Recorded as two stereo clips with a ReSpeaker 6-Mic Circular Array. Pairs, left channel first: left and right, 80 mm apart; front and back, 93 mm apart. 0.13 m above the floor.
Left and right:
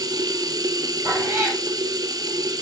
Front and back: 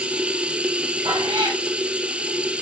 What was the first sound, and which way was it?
Running water, 105° right.